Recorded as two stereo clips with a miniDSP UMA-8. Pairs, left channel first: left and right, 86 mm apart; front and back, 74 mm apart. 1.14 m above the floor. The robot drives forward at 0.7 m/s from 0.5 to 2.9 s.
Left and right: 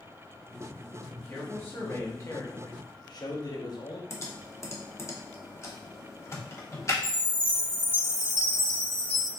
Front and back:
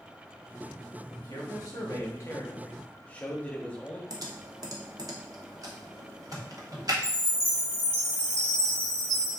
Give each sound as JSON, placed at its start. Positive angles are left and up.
{"t": 1.1, "sound": "a man speaking", "azimuth_deg": 25, "distance_m": 1.8}
{"t": 4.1, "sound": "typing on a keyboard", "azimuth_deg": 145, "distance_m": 0.9}
{"t": 7.0, "sound": "a chime", "azimuth_deg": -80, "distance_m": 1.9}